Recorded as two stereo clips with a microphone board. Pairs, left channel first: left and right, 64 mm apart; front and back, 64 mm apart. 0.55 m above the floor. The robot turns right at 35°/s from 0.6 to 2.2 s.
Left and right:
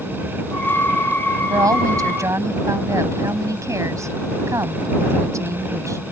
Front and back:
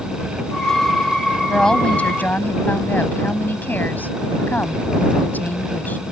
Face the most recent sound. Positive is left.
turn(degrees=-60)